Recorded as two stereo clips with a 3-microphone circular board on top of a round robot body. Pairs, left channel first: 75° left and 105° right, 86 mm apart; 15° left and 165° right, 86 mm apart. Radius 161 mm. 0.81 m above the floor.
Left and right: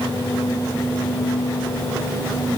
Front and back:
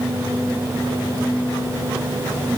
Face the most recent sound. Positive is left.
No sound to turn to.